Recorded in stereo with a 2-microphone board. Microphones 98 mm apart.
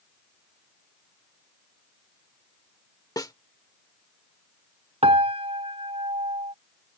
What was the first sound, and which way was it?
A snare drum, 40° left (ahead or behind).